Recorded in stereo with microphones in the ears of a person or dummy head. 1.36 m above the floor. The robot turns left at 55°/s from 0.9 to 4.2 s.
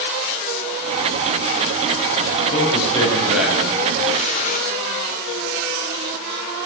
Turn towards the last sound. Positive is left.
turn(degrees=45)  # may be behind; listen again after turning